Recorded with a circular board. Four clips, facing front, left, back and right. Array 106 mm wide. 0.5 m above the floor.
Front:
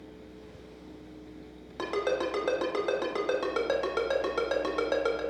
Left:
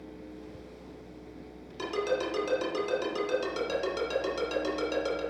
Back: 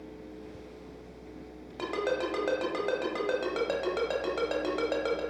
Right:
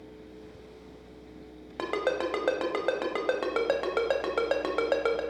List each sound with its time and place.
1.8 s a ringtone: 85° right, 1.2 m